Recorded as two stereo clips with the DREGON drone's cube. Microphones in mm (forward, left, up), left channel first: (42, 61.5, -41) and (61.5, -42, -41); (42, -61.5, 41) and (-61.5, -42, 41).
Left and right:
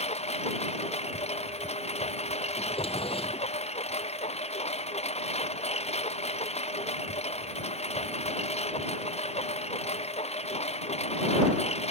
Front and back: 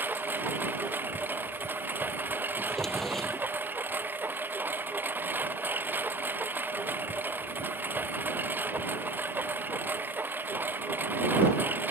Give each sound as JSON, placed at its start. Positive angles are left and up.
{"t": 0.0, "sound": "a lawn mower", "azimuth_deg": 95}
{"t": 2.6, "sound": "a drawer", "azimuth_deg": 75}